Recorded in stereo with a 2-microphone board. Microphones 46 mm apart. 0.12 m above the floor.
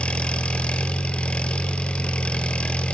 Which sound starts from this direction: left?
An engine running, at 0.0 s.